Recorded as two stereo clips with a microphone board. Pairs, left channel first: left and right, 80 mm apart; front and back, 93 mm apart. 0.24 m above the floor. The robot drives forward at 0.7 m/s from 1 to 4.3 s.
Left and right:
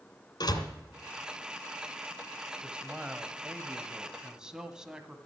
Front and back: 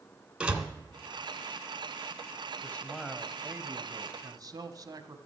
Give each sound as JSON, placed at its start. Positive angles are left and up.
{"t": 0.4, "sound": "a door slam", "azimuth_deg": 100, "distance_m": 2.0}
{"t": 2.6, "sound": "a man speaking", "azimuth_deg": -35, "distance_m": 0.9}